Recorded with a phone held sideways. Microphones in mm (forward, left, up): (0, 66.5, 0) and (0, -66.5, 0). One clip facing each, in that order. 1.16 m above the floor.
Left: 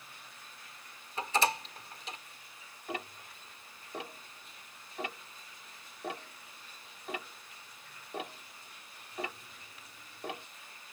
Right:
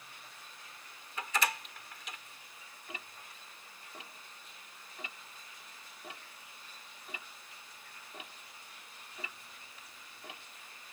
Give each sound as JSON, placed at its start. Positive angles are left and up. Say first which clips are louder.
{"t": 1.2, "sound": "a door slam", "louder": "left 4 dB", "side_deg": 30}
{"t": 2.9, "sound": "ticking", "louder": "left 10 dB", "side_deg": 70}